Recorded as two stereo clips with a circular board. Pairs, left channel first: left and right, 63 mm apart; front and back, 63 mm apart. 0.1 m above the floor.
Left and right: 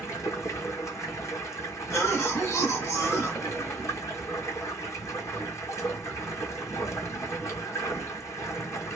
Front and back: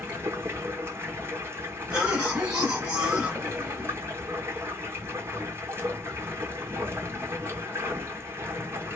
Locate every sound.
0.0 s running water: 130° left, 0.8 m
1.9 s a cough: 110° left, 2 m